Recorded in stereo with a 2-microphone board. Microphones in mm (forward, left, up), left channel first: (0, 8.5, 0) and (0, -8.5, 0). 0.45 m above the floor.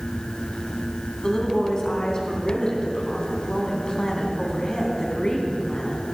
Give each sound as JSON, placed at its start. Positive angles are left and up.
{"t": 1.2, "sound": "a woman speaking", "side_deg": 45, "distance_m": 3.5}